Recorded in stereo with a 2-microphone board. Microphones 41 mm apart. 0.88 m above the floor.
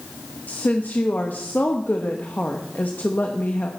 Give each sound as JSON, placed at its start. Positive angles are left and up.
{"t": 0.5, "sound": "a woman speaking", "side_deg": 50, "distance_m": 1.2}